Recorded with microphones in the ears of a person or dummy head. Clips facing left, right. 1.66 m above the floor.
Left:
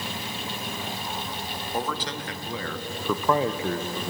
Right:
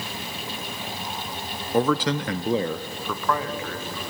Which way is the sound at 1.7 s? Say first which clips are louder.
Right 10 dB; 65° right (ahead or behind).